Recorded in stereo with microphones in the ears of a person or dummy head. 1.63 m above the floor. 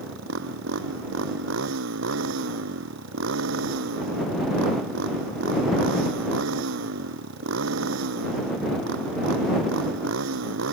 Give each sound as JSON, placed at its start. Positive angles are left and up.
{"t": 0.0, "sound": "a motorcycle", "side_deg": -70}